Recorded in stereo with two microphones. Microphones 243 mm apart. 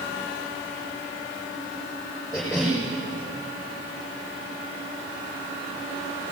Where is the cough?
Centre (ahead or behind), 8 m.